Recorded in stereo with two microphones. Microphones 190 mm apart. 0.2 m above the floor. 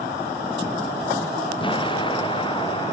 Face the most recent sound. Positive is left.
turn(degrees=25)  # may be behind; listen again after turning